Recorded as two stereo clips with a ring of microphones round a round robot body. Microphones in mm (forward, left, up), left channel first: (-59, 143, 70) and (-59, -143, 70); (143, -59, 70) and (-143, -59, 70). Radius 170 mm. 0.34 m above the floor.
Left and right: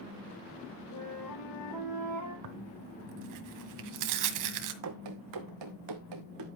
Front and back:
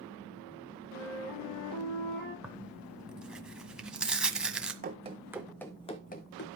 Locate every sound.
0.9 s a flute: 55° left, 5.5 m
2.4 s tearing paper: 95° right, 1.6 m
4.8 s running footsteps: 120° right, 1.7 m; by 6.5 s 50° right, 1.9 m